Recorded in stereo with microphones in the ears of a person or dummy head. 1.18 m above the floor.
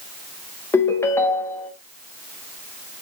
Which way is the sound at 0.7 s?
10° left (ahead or behind).